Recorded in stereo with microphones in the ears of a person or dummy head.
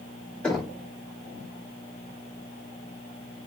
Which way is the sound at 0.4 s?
Centre (ahead or behind).